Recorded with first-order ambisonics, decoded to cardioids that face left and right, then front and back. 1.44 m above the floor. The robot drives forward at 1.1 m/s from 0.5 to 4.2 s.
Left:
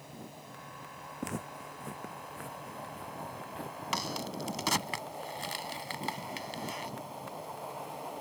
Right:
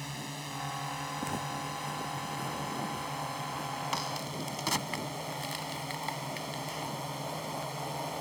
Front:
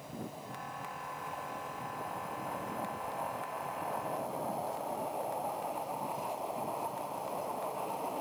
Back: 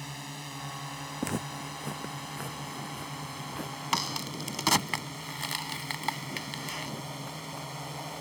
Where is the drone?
135° right; by 8.2 s 140° right.